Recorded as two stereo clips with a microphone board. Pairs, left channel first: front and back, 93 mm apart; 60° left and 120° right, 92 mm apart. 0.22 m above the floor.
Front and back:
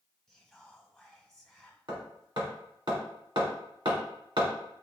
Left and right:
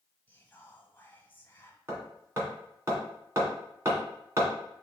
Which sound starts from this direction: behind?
Hammering, at 1.9 s.